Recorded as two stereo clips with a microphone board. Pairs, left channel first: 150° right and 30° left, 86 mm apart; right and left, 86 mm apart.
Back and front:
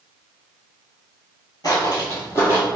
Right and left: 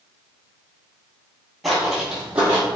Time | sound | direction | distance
1.6 | footsteps | straight behind | 1.6 m